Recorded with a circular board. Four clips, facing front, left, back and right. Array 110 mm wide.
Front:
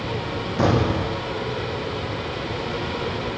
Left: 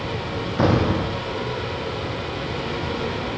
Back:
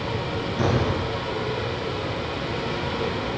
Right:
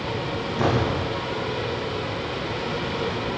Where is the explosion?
60° left, 7 m.